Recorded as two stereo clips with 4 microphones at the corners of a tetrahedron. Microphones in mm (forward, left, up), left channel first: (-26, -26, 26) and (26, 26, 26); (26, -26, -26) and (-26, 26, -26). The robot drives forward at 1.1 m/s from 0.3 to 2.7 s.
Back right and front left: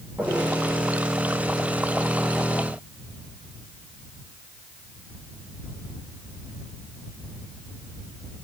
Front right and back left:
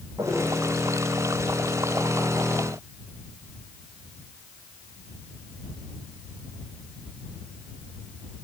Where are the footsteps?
100° left, 4.5 m.